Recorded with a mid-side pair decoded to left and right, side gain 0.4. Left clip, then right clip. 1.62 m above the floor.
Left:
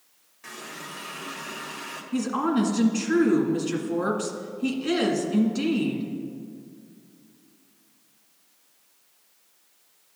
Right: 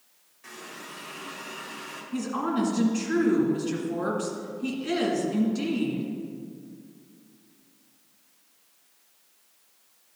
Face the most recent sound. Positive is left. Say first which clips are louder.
# left 3 dB
turn(degrees=45)